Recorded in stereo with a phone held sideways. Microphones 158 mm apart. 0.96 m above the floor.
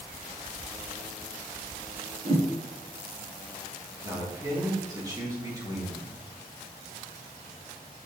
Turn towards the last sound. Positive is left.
turn(degrees=-25)  # may be behind; listen again after turning